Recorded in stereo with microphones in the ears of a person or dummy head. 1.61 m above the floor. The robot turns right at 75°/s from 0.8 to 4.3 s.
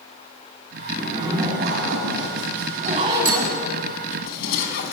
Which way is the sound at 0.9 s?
165° left.